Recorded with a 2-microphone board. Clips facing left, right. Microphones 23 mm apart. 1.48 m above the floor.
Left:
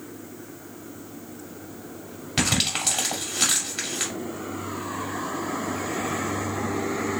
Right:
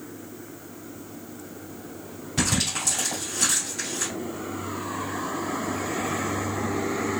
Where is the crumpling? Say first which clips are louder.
Left 2 dB; 70° left (ahead or behind), 1.9 m.